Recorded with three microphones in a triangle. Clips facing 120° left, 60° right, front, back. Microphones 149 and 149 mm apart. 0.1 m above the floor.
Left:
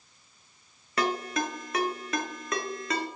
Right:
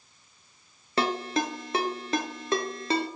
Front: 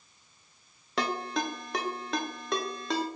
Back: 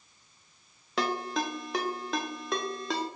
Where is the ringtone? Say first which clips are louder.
Right 2 dB, back 1 dB; 90° right, 0.6 m.